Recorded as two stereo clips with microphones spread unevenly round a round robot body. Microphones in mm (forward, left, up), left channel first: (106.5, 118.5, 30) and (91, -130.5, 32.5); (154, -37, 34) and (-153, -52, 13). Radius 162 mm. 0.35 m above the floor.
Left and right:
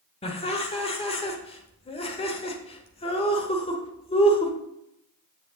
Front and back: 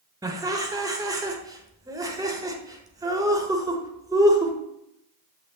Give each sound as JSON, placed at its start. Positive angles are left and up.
{"t": 0.2, "sound": "laughter", "azimuth_deg": 125, "distance_m": 1.1}